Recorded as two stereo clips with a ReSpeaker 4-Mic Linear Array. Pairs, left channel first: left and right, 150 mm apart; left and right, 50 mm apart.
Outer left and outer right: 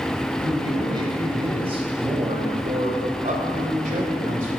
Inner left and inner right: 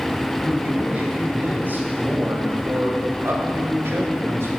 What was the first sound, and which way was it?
A man speaking, 25° right (ahead or behind).